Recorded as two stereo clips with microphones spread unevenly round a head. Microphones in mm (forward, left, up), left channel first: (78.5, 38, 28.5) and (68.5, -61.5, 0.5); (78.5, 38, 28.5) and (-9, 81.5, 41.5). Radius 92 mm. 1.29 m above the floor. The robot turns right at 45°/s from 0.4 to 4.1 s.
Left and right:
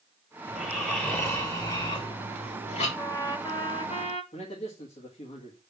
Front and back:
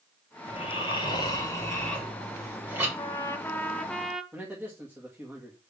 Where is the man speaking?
80° left, 2.0 m.